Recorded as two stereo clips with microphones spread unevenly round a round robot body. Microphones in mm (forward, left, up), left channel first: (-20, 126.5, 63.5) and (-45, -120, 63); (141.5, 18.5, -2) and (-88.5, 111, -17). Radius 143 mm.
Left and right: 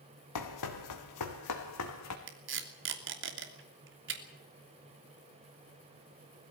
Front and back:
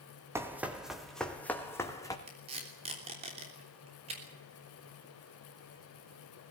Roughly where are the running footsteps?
Left.